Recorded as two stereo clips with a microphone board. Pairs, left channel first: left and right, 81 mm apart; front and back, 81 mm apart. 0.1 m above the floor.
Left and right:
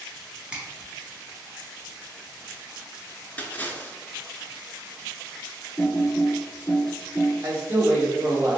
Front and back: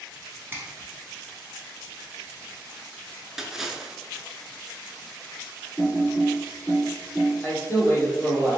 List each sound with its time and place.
0.5 s a finger snap: 150° right, 1.2 m
3.4 s a splash: 105° left, 0.5 m
5.8 s typing on a keyboard: 95° left, 1.7 m
7.4 s a man speaking: 45° right, 1.2 m